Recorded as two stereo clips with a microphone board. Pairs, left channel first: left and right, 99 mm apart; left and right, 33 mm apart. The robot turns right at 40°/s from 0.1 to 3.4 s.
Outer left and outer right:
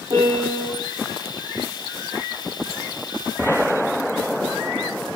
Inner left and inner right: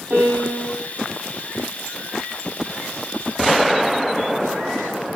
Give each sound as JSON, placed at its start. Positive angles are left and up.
{"t": 0.1, "sound": "a piano", "side_deg": -50, "distance_m": 8.0}